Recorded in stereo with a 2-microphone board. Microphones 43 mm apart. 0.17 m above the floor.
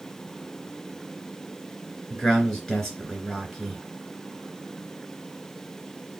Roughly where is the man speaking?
Centre.